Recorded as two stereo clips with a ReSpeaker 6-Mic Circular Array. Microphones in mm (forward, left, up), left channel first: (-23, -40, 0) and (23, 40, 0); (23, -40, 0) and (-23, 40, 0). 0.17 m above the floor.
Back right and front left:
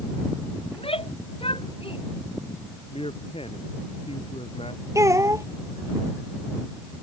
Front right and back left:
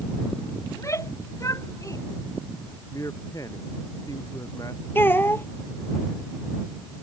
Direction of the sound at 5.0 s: 5° left.